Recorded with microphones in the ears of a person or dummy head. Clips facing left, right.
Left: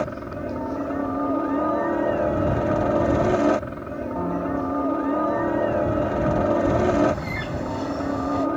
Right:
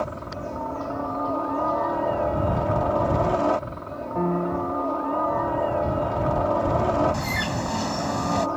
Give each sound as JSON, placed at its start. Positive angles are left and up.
{"t": 0.0, "sound": "a helicopter", "side_deg": 25}
{"t": 4.2, "sound": "a piano", "side_deg": -25}
{"t": 7.1, "sound": "a bird", "side_deg": -70}